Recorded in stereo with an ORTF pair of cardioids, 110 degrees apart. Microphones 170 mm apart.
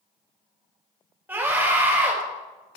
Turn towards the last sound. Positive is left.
turn(degrees=-10)